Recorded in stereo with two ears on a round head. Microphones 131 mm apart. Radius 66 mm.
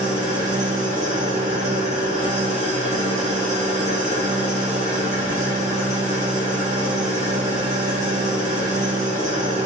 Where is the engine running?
55° right (ahead or behind), 2 m.